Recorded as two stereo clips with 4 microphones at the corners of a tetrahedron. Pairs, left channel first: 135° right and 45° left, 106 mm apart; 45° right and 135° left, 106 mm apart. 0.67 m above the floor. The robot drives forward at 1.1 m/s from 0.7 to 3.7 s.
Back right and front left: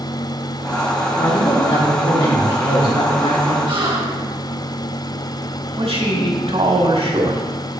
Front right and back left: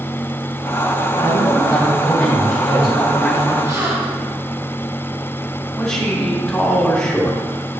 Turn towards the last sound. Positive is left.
turn(degrees=35)